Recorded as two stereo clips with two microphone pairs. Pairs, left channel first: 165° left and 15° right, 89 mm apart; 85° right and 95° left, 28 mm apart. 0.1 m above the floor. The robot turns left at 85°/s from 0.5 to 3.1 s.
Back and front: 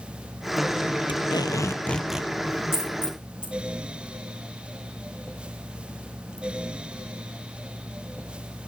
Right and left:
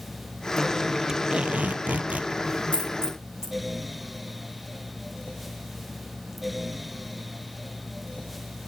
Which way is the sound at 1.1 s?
160° left.